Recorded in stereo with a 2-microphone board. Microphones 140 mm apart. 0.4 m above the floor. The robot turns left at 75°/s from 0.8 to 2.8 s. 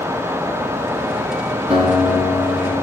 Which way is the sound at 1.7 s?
130° right.